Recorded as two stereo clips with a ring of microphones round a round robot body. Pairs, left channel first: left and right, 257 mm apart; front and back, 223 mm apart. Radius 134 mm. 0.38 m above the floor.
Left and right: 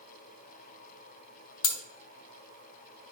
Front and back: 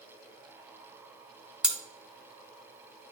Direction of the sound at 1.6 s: 95° left.